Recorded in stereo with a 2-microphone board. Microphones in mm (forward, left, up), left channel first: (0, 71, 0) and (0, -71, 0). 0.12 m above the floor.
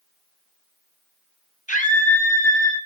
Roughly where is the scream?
Left.